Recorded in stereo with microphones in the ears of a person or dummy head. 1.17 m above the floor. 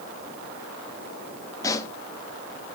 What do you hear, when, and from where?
1.6 s a pop: 20° left (ahead or behind), 1.4 m